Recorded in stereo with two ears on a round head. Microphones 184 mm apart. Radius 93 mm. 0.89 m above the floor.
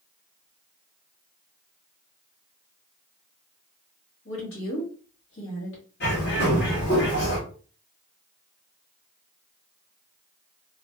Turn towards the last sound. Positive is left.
turn(degrees=55)  # may be behind; listen again after turning